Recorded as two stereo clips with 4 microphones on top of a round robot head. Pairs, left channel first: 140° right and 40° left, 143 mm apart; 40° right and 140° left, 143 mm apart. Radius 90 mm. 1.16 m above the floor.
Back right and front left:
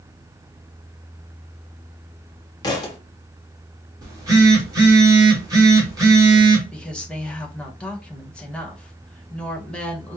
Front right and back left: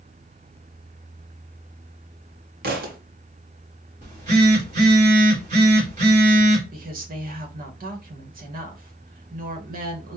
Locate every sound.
2.6 s a thud: 160° left, 1.1 m
4.0 s a phone buzzing: 105° left, 2 m
6.7 s a woman speaking: 135° left, 1.5 m